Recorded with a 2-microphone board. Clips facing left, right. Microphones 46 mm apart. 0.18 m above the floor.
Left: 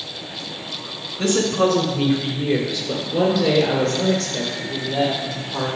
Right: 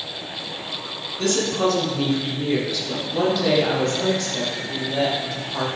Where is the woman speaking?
25° left (ahead or behind), 1.5 m; by 5.7 s 5° left (ahead or behind), 4 m.